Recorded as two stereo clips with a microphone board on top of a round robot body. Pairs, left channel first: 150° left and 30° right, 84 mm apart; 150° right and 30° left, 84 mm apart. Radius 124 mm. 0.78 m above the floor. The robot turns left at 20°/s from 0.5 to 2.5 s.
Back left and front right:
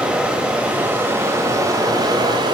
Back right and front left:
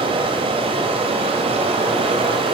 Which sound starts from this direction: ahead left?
Running water, at 0.0 s.